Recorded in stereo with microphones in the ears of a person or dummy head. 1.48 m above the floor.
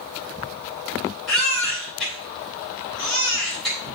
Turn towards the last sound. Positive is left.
turn(degrees=5)  # may be behind; listen again after turning